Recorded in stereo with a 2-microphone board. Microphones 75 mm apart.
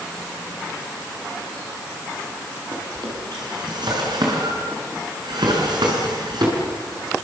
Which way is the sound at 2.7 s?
75° right (ahead or behind).